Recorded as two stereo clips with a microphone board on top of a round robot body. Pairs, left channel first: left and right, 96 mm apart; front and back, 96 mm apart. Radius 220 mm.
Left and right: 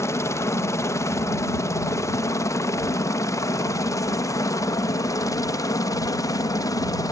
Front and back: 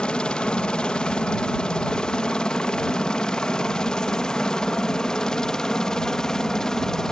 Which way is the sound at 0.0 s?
70° left.